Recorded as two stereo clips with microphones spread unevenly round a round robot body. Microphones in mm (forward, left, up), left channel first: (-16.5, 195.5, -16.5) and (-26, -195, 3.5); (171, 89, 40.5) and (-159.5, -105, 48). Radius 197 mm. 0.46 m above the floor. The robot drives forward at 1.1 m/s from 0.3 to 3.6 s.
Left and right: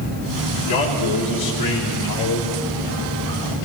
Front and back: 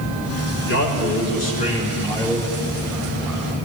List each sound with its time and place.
0.7 s a man speaking: 85° left, 4 m; by 3.5 s 130° left, 5 m